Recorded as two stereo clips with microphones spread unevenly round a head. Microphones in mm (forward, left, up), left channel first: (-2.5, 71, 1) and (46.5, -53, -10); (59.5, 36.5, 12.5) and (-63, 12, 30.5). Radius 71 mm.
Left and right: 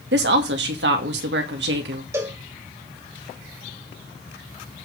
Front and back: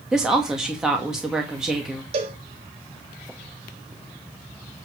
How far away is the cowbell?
About 1.8 m.